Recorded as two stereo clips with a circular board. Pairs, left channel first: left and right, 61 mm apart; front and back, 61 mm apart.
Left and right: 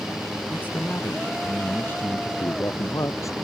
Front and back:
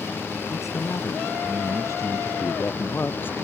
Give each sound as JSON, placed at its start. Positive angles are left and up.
{"t": 0.5, "sound": "a man speaking", "azimuth_deg": 30}
{"t": 2.4, "sound": "a man speaking", "azimuth_deg": 55}